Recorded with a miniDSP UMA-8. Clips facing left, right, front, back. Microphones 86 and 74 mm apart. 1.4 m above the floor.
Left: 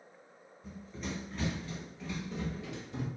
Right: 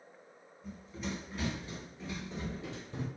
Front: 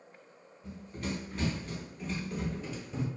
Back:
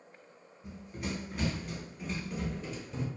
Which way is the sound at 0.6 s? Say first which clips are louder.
Right 1 dB, front 1 dB; 175° left.